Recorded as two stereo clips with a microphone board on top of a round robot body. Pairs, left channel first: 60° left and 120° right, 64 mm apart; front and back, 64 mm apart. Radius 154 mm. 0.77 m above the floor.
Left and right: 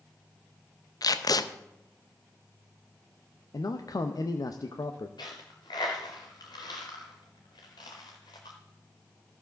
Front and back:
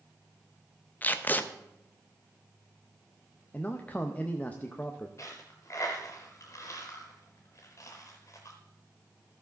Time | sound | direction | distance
1.0 | tape being pulled | 60° left | 0.7 m
3.5 | a man speaking | 65° left | 0.7 m
5.2 | a dropped coin | 50° left | 0.5 m